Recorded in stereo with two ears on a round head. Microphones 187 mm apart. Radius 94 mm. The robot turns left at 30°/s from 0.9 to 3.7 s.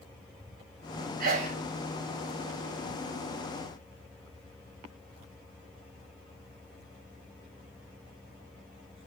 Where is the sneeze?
45° right (ahead or behind), 0.8 m; by 1.6 s 35° right (ahead or behind), 0.8 m.